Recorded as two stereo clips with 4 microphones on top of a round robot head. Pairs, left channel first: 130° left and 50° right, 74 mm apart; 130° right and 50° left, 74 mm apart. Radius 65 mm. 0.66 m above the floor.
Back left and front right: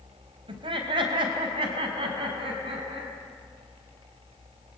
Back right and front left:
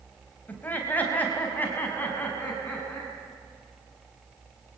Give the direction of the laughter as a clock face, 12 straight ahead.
2 o'clock.